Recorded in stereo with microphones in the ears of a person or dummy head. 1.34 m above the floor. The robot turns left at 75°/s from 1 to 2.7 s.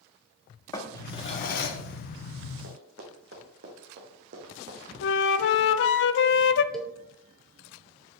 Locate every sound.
0.7 s a drawer: 155° left, 1.2 m; by 1.8 s 95° left, 1.2 m
2.6 s running footsteps: 65° right (ahead or behind), 3 m; by 4.9 s 45° right (ahead or behind), 2.5 m
5.0 s a flute: 65° left (ahead or behind), 0.6 m
6.7 s a cowbell: 5° left (ahead or behind), 0.6 m